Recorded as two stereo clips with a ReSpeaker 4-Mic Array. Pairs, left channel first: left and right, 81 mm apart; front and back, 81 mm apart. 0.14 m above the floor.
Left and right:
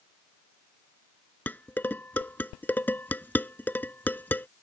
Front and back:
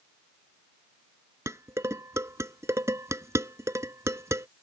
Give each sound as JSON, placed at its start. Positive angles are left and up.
{"t": 1.5, "sound": "dishes clattering", "azimuth_deg": 150}